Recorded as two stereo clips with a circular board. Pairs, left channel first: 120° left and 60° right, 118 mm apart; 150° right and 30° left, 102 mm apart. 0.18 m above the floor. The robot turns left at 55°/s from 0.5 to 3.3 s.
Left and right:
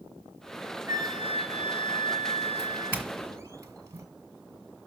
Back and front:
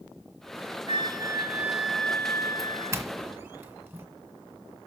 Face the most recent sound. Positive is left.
turn(degrees=-20)